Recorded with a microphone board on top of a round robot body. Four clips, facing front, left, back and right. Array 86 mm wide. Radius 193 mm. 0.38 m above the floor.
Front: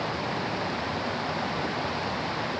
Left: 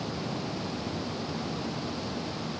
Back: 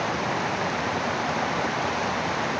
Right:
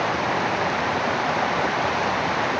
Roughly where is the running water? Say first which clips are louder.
Right 12 dB, back 4 dB; right.